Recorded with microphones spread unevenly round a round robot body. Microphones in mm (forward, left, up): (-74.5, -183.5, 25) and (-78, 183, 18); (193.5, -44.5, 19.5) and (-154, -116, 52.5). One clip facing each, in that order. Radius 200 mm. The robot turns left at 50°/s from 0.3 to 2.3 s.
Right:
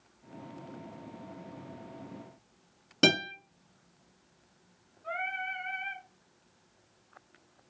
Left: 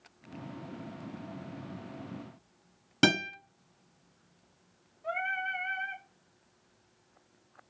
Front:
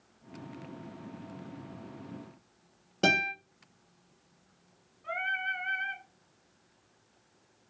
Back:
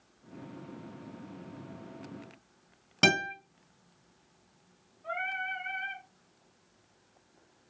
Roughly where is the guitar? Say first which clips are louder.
Even, back 1 dB; behind.